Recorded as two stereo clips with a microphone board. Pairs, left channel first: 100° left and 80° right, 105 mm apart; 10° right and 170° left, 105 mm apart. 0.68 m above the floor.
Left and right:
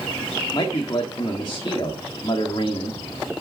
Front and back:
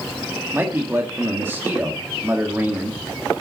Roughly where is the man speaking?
Left.